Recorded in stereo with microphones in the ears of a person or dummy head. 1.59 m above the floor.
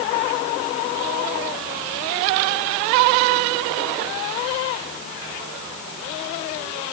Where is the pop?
I don't hear a pop.